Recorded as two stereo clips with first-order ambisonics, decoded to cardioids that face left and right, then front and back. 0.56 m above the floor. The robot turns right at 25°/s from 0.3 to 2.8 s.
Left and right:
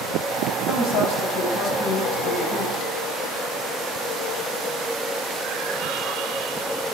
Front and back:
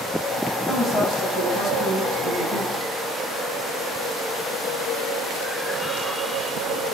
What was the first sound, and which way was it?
A woman speaking, 75° left.